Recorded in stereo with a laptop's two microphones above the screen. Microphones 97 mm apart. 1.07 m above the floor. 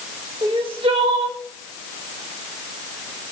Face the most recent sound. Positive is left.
turn(degrees=-70)  # may be behind; listen again after turning